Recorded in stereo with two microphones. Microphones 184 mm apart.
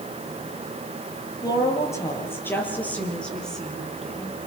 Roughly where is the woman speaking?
Centre.